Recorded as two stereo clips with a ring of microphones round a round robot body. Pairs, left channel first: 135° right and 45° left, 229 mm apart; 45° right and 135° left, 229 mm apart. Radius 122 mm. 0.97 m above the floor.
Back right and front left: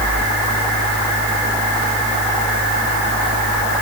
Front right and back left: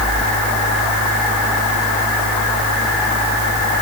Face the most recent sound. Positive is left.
No sound to turn to.